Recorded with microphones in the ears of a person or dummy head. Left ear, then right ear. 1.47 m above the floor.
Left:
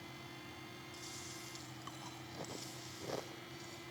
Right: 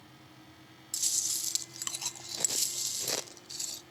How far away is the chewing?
About 0.7 m.